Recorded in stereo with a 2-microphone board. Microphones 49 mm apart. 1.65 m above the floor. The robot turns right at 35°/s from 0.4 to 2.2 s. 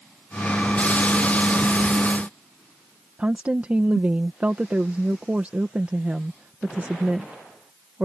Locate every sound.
3.2 s a woman speaking: 30° right (ahead or behind)